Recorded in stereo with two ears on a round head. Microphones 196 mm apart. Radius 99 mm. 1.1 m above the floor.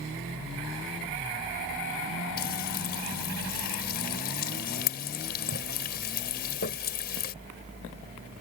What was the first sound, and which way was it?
Frying, 45° left (ahead or behind).